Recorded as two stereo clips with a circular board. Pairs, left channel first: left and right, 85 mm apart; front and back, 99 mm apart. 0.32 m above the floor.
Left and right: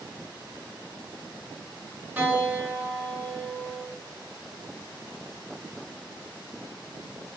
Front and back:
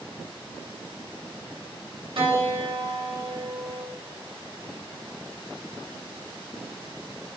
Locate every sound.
2.2 s a piano: 160° right, 1.1 m